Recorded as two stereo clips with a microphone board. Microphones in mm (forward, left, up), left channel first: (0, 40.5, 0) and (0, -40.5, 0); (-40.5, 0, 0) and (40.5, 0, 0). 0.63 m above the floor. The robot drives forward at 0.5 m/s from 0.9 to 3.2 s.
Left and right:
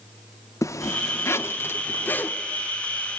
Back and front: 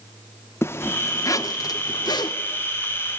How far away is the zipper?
About 0.7 m.